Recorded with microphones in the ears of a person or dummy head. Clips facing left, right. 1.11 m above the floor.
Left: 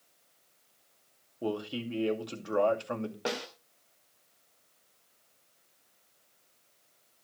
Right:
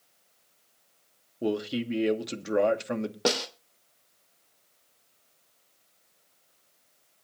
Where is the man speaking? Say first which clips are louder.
Right 5 dB; 25° right (ahead or behind), 2 m.